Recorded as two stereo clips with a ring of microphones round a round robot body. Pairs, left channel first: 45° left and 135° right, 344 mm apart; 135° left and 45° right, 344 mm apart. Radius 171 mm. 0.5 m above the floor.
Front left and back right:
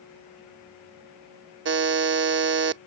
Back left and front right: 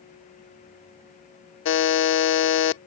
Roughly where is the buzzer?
Behind.